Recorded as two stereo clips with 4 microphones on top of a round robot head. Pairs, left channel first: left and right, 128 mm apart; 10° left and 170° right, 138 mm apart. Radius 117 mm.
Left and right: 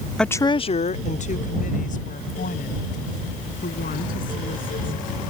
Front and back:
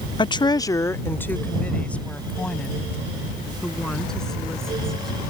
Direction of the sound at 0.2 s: 5° left.